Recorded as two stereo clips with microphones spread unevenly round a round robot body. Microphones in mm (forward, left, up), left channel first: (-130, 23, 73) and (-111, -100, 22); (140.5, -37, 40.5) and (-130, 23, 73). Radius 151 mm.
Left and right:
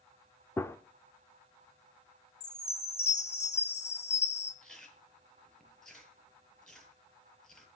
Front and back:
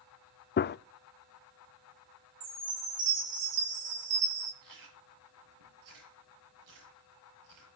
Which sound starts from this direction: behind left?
A chime, at 2.4 s.